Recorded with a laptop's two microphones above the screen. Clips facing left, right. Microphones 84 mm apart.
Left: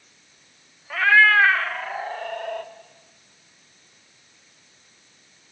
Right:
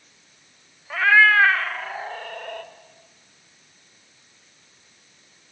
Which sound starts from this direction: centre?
A cat meowing, at 0.9 s.